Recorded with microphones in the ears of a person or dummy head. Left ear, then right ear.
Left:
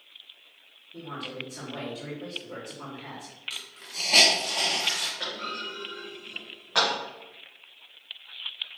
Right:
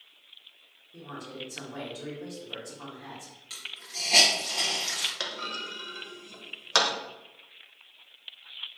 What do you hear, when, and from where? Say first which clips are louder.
0.9 s a man speaking: left 4 dB; 40° right (ahead or behind), 1.1 m
3.5 s a hiss: even; 5° left (ahead or behind), 1.1 m
5.2 s a clunk: left 1 dB; 75° right (ahead or behind), 0.8 m